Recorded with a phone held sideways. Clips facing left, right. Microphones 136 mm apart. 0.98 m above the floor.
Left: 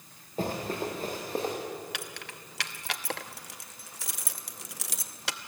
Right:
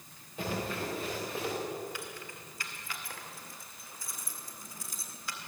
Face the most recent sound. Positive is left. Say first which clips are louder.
# left 1 dB
turn(degrees=80)